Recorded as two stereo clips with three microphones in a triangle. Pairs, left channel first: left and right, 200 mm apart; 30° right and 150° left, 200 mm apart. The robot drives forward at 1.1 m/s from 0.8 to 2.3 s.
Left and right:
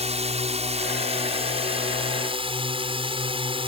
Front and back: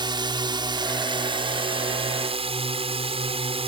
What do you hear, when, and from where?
0.0 s a drone: 145° right; by 3.7 s 150° right